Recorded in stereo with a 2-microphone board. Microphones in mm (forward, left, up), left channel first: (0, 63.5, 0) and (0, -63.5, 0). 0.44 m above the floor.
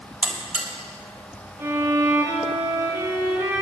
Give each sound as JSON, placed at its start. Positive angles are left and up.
{"t": 0.2, "sound": "a buzzer", "side_deg": -10, "distance_m": 2.5}
{"t": 1.6, "sound": "a violin", "side_deg": -20, "distance_m": 3.0}